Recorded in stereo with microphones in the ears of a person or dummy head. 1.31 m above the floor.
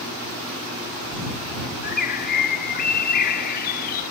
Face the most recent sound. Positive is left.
turn(degrees=55)  # may be behind; listen again after turning